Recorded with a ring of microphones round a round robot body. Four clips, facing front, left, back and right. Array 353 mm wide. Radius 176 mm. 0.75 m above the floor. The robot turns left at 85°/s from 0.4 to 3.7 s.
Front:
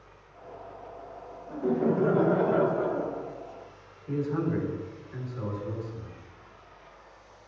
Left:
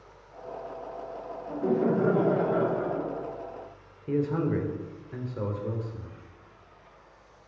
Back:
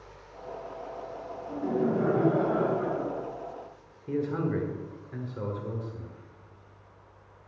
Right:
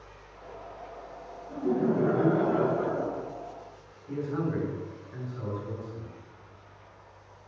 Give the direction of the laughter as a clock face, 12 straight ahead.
9 o'clock.